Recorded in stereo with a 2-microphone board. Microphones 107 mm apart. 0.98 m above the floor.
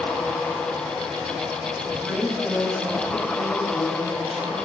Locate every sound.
1.9 s a woman speaking: centre (ahead or behind), 6.5 m